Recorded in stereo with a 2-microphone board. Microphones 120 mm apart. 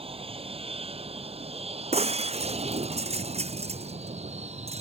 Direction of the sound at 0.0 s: 50° right (ahead or behind).